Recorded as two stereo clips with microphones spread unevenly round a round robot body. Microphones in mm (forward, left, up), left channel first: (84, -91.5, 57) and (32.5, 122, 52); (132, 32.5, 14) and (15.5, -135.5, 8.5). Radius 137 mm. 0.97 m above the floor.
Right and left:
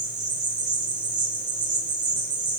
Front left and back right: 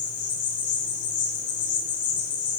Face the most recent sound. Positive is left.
turn(degrees=50)